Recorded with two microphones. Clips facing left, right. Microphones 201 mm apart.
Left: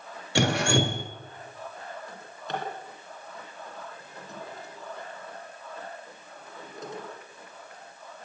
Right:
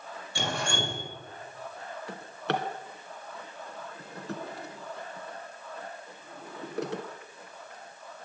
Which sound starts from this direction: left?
Dripping, at 0.3 s.